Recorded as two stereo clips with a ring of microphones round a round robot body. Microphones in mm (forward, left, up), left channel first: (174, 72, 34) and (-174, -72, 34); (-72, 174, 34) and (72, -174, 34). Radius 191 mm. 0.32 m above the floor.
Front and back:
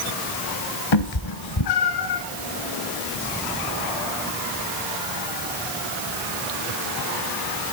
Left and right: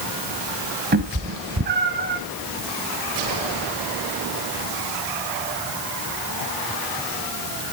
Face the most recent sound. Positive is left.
turn(degrees=-5)